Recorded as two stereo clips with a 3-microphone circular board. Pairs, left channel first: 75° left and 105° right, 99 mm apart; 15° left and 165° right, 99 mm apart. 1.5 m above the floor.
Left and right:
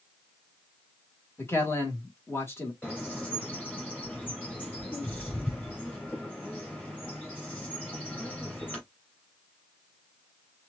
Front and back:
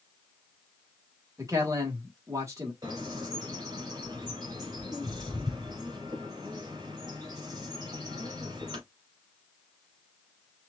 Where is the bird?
145° left, 3.5 m.